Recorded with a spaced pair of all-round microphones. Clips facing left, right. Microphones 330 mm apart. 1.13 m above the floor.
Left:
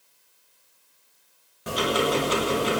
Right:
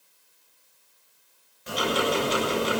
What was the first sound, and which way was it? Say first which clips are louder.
Ticking: left 2 dB; 85° left.